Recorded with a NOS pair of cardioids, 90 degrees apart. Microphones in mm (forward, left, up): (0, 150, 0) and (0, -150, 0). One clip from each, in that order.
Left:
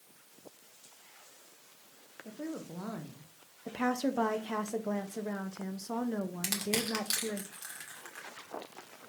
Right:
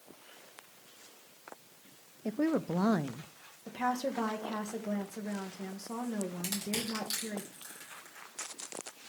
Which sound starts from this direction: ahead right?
A woman speaking, at 2.2 s.